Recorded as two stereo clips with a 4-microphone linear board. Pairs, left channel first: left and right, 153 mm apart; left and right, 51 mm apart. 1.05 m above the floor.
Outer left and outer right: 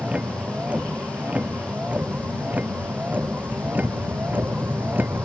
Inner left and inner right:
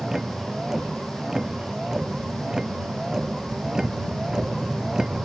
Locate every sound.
0.0 s a vehicle: 5° right (ahead or behind); by 5.2 s 10° right (ahead or behind)